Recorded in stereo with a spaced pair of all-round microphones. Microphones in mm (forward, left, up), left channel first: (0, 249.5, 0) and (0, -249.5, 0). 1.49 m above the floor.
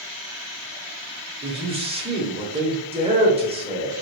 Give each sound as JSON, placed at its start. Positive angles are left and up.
{"t": 1.4, "sound": "a man speaking", "side_deg": -10, "distance_m": 0.8}